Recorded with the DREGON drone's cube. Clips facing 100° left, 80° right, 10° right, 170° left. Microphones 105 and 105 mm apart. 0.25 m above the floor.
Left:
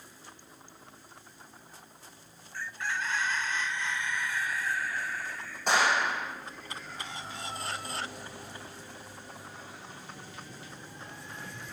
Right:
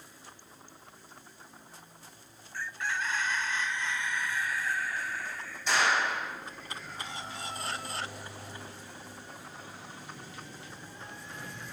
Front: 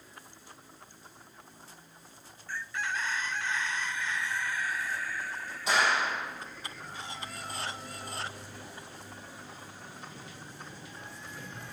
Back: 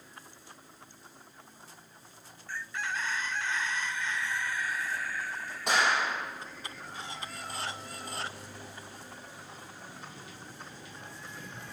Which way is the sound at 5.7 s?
135° left.